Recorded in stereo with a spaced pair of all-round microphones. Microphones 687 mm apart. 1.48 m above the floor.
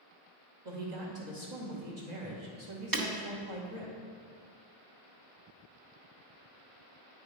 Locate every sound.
0.7 s a woman speaking: 80° right, 2 m
2.9 s breaking glass: 30° right (ahead or behind), 1.0 m